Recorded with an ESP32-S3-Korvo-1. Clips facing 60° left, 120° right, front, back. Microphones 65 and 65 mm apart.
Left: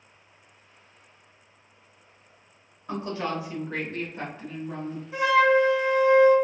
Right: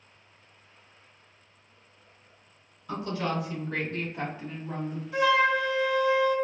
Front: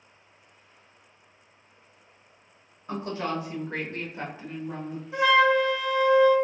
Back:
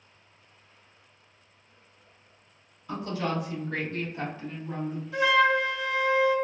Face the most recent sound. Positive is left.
turn(degrees=35)